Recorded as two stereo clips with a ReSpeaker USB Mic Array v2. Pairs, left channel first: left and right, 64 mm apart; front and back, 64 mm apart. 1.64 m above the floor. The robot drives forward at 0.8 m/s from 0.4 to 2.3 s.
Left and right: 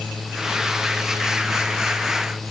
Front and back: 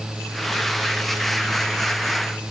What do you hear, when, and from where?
Only background noise.